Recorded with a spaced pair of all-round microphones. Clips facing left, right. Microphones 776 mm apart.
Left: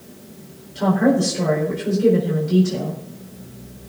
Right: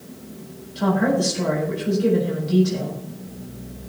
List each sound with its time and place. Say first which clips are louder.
0.8 s a woman speaking: left 3 dB; 70° left (ahead or behind), 4.5 m